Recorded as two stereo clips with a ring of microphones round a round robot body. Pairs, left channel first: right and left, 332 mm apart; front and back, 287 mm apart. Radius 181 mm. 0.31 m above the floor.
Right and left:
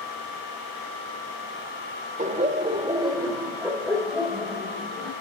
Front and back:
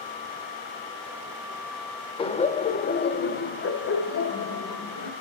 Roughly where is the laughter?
Ahead left.